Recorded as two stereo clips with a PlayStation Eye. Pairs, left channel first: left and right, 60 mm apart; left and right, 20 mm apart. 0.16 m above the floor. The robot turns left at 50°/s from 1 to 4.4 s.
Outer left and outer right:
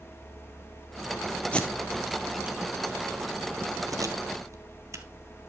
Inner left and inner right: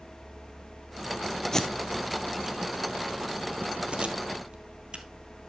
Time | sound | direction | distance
1.5 | tape being pulled | 20° left (ahead or behind) | 1.4 m